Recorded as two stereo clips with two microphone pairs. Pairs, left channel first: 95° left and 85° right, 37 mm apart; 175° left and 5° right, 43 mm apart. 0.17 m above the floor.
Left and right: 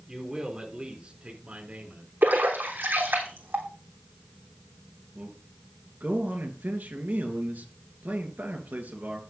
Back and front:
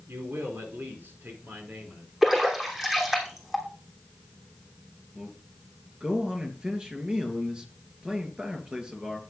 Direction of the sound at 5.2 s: 70° right.